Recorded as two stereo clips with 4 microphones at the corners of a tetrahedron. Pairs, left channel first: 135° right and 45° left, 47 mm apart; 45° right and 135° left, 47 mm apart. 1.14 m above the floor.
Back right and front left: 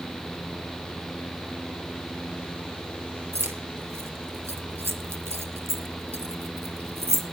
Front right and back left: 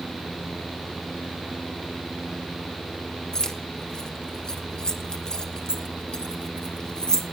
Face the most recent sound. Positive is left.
turn(degrees=30)